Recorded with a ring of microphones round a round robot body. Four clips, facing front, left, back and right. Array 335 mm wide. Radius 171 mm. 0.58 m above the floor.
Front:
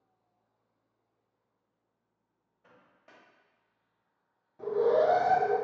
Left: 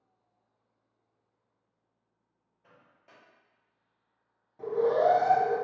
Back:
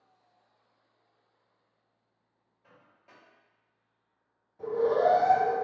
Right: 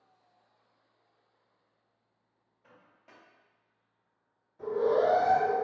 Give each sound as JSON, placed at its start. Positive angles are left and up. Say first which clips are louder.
{"t": 2.6, "sound": "a microwave", "louder": "right 1 dB, even", "azimuth_deg": -5, "distance_m": 1.0}
{"t": 4.6, "sound": "an alarm", "louder": "left 1 dB, even", "azimuth_deg": 55, "distance_m": 1.7}